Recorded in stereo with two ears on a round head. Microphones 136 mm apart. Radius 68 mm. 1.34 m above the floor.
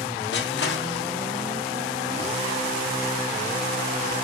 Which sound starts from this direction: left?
Crushing, at 0.3 s.